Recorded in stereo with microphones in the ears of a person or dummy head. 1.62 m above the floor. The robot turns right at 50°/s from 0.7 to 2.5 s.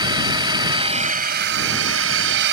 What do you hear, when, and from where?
0.0 s a drone: 155° right; by 2.5 s 65° right